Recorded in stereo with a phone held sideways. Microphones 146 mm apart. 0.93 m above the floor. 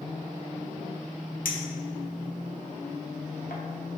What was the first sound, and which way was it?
A clink, 70° left (ahead or behind).